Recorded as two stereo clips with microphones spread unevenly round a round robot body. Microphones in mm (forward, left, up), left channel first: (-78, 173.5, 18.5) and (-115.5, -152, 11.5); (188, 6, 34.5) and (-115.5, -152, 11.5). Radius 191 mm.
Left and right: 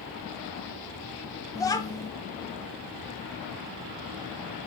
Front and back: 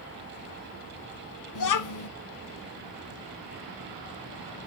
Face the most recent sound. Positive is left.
turn(degrees=5)